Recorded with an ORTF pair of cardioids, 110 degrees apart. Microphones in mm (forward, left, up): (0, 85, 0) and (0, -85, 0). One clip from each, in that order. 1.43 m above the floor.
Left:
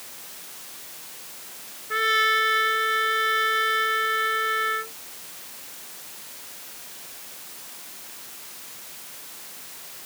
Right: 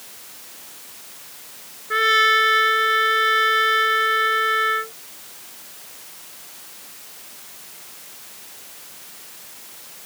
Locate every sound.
1.9 s a trumpet: 30° right